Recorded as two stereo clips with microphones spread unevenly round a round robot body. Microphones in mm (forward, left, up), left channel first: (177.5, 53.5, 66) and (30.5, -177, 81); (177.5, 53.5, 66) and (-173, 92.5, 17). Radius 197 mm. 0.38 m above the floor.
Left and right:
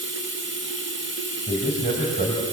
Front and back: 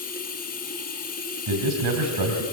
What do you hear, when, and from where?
0.0 s running water: 75° right, 2.5 m
1.5 s a man speaking: 170° left, 3 m